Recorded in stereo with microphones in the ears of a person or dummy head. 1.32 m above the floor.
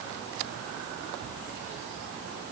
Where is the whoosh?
No whoosh in this recording.